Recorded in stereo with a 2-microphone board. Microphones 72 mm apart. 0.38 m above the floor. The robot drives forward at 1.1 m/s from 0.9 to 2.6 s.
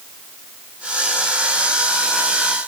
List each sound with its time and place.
Only background noise.